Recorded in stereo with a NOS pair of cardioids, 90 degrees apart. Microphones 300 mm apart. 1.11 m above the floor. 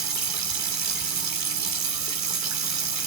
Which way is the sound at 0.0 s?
65° right.